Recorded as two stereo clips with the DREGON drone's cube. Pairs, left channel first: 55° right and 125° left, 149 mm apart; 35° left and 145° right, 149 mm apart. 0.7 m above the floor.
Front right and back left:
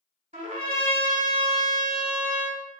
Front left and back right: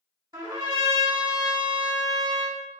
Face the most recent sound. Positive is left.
turn(degrees=150)